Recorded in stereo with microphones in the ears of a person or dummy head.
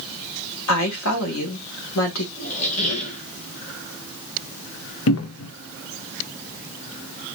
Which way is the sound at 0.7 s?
85° left.